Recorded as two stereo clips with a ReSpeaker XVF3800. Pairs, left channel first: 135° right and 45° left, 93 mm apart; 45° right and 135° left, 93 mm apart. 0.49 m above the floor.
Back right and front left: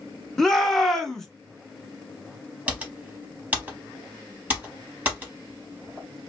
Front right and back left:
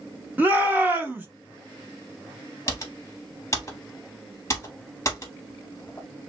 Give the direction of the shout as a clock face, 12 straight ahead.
7 o'clock.